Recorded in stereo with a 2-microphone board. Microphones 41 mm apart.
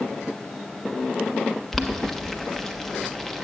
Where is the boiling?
10° left (ahead or behind), 1.0 m.